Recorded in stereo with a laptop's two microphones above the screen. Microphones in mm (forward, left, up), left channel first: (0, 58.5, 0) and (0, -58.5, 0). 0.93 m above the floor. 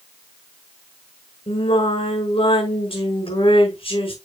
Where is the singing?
50° left (ahead or behind), 6 m.